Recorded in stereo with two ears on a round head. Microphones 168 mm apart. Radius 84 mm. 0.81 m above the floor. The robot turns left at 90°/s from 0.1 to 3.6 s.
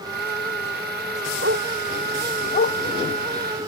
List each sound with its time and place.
1.4 s a dog barking: 60° right (ahead or behind); by 2.8 s 60° left (ahead or behind)